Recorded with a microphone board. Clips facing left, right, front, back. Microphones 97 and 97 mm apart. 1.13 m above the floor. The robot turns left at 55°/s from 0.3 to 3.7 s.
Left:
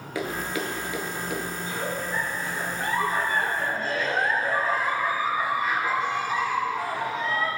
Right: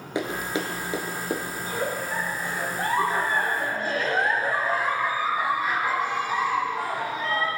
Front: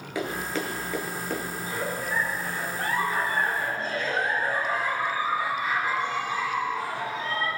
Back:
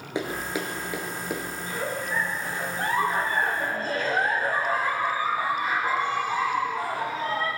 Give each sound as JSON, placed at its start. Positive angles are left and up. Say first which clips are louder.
{"t": 0.1, "sound": "running footsteps", "louder": "right 1 dB, even", "azimuth_deg": -135, "distance_m": 1.2}
{"t": 1.6, "sound": "a giggle", "louder": "right 2 dB, even", "azimuth_deg": -50, "distance_m": 1.3}